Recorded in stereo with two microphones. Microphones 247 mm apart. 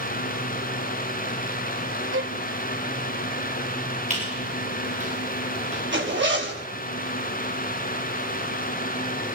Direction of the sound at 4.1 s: 30° right (ahead or behind).